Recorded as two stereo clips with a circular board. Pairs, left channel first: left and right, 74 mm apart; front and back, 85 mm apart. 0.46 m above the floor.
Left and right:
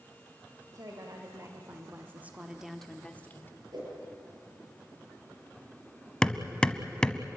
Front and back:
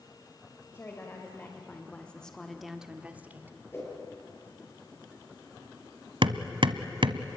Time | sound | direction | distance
0.7 | a woman speaking | 60° right | 2.5 m
3.7 | a whoosh | 60° right | 8 m
6.2 | hammering | 170° left | 1.0 m